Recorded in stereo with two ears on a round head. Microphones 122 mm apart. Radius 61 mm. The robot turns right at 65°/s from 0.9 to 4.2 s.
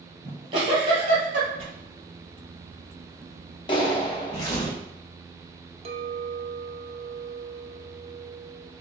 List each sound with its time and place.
0.2 s a giggle: 35° right (ahead or behind), 2.5 m; by 1.5 s 70° right (ahead or behind), 2.5 m
1.6 s tearing paper: 40° right (ahead or behind), 1.2 m; by 4.7 s 30° left (ahead or behind), 1.2 m
3.7 s a clap: 75° left, 0.9 m; by 4.6 s 110° left, 0.9 m
5.8 s a clink: 45° right (ahead or behind), 0.7 m